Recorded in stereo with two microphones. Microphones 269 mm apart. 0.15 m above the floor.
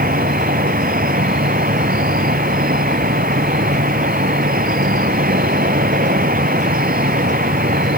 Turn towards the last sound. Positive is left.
turn(degrees=-35)  # may be behind; listen again after turning